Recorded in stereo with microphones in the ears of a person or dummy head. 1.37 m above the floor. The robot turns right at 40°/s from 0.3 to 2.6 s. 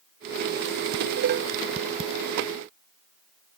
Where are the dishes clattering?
60° right (ahead or behind); by 2.1 s 25° right (ahead or behind).